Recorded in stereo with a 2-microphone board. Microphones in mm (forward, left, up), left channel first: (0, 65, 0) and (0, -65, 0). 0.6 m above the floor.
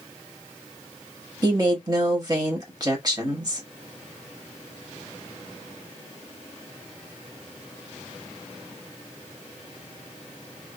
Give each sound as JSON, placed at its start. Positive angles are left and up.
{"t": 1.4, "sound": "a woman speaking", "side_deg": -30, "distance_m": 1.1}